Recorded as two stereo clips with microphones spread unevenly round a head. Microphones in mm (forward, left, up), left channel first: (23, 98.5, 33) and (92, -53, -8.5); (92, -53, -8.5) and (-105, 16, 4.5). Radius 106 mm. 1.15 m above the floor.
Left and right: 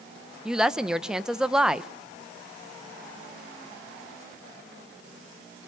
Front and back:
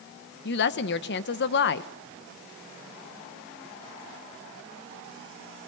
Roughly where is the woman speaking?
Ahead.